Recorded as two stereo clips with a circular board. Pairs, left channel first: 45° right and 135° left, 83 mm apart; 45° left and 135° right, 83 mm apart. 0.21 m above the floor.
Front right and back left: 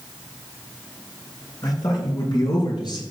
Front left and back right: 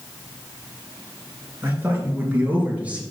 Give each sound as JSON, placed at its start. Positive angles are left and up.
{"t": 1.6, "sound": "a man speaking", "azimuth_deg": -75, "distance_m": 3.5}